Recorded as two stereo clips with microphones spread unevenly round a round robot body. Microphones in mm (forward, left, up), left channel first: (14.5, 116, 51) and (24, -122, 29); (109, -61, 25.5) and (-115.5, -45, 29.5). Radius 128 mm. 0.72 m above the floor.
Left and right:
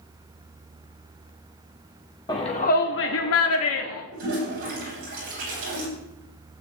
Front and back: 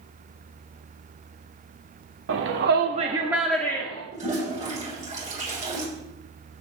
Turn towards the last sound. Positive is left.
turn(degrees=-125)